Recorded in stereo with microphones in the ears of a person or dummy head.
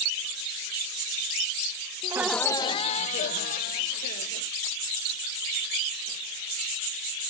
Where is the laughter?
25° right (ahead or behind); by 4.5 s 60° left (ahead or behind).